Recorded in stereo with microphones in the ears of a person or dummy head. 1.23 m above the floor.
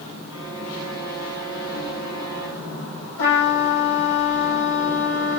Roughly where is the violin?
Right.